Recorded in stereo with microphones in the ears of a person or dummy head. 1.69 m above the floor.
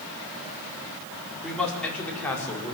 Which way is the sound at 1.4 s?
Centre (ahead or behind).